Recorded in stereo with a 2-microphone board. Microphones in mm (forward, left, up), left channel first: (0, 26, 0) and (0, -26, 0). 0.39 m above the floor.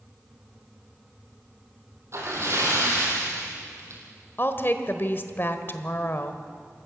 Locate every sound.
2.1 s a splash: 60° right (ahead or behind), 5 m
4.4 s a woman speaking: 45° left (ahead or behind), 1.4 m